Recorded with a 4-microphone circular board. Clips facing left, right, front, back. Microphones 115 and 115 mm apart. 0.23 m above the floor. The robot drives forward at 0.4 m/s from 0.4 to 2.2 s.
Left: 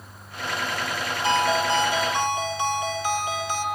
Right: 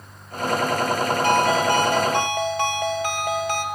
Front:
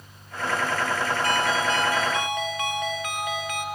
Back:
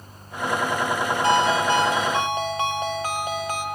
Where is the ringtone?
115° right, 2.5 m; by 3.6 s 120° right, 2.5 m.